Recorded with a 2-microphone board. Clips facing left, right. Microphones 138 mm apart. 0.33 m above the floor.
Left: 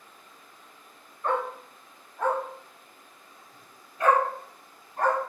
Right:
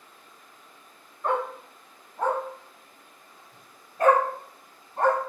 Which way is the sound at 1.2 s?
15° right (ahead or behind).